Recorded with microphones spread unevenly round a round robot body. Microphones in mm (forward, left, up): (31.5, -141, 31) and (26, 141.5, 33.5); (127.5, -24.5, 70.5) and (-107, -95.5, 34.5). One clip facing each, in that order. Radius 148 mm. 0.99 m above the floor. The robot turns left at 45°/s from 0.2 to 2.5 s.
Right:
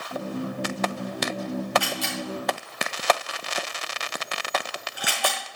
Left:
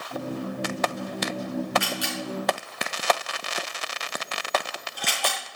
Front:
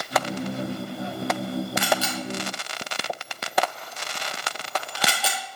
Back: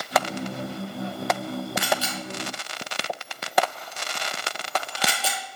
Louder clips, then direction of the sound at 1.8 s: Even, front 2 dB; 25° left.